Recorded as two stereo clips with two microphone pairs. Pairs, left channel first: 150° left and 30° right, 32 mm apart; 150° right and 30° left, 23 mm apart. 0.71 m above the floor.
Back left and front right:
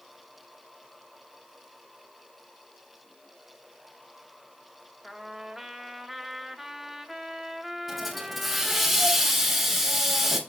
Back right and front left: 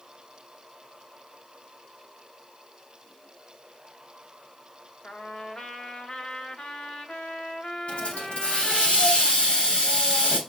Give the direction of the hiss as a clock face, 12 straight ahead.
4 o'clock.